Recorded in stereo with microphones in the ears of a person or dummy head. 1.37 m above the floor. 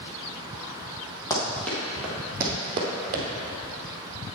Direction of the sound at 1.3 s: 15° left (ahead or behind).